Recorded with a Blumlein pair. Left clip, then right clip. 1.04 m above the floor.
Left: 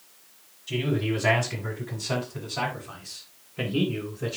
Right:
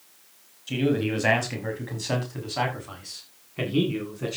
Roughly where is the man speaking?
Ahead.